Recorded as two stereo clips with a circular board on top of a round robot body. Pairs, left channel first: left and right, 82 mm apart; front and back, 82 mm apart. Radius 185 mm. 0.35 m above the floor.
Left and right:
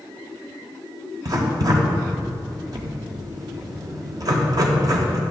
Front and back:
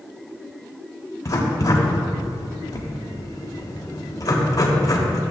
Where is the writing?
50° right, 1.5 m.